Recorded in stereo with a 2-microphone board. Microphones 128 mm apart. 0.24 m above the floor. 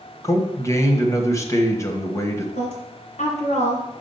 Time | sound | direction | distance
0.2 | a man speaking | 25° left (ahead or behind) | 1.1 m
2.5 | a woman speaking | 65° left (ahead or behind) | 2.5 m